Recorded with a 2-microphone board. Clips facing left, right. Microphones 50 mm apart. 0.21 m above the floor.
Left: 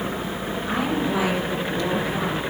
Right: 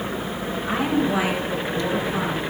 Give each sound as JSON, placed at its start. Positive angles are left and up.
{"t": 0.6, "sound": "a woman speaking", "side_deg": -20, "distance_m": 4.0}